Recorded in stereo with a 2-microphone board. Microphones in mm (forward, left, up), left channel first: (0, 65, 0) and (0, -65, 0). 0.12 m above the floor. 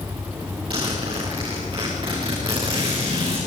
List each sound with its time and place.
0.7 s a zipper: 40° right (ahead or behind), 10 m